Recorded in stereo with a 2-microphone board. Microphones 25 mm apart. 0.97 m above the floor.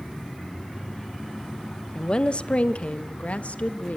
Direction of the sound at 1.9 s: 30° left (ahead or behind).